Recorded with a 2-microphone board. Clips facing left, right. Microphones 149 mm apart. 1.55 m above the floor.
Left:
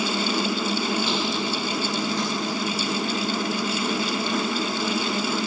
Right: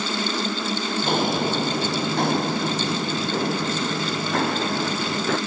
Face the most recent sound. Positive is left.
turn(degrees=-65)  # may be behind; listen again after turning